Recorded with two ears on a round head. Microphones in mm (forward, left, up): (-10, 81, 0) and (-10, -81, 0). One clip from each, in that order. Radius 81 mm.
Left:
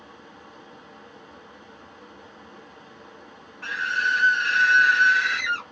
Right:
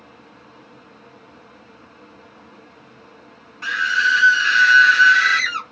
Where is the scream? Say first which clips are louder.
Right 6 dB; 65° right (ahead or behind), 1.0 m.